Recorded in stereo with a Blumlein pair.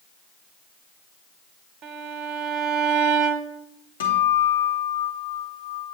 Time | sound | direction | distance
1.8 | a violin | 35° right | 0.8 m
4.0 | a guitar | 65° left | 1.5 m